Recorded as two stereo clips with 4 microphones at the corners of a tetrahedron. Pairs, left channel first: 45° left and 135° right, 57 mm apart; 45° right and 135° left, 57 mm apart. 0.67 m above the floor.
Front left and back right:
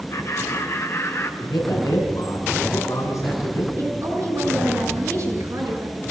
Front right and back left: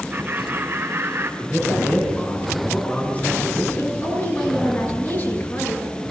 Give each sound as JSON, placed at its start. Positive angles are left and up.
{"t": 0.1, "sound": "laughter", "azimuth_deg": 65, "distance_m": 2.5}
{"t": 1.4, "sound": "a man speaking", "azimuth_deg": 20, "distance_m": 7.5}
{"t": 3.8, "sound": "a woman speaking", "azimuth_deg": -95, "distance_m": 9.0}